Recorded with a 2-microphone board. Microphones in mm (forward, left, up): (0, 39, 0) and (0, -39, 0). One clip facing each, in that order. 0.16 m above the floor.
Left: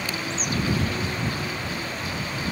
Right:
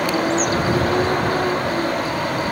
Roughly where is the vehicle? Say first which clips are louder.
Right 11 dB; right.